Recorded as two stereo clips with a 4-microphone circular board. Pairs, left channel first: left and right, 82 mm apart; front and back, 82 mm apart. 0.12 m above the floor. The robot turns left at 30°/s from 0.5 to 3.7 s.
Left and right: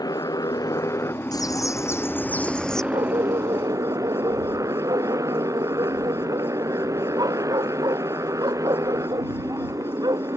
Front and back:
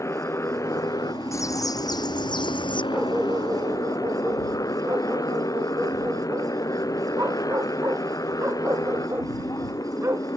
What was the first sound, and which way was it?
A motorcycle, 55° left.